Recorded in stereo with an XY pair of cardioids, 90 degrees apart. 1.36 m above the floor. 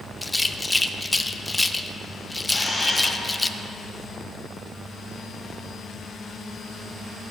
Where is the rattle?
15° left, 0.6 m.